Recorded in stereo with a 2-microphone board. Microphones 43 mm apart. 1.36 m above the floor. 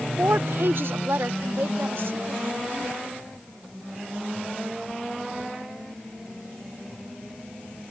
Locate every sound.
0.2 s a woman speaking: 55° right (ahead or behind); by 3.0 s 65° right (ahead or behind)